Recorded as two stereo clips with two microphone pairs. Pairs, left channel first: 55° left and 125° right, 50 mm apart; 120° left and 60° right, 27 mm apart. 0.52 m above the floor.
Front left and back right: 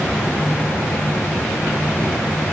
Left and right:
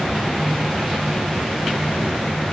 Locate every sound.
Only background noise.